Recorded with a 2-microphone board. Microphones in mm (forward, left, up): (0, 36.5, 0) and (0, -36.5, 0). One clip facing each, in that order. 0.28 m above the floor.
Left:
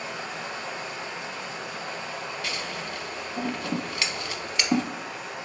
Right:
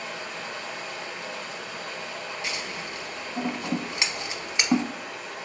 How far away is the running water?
About 2.0 m.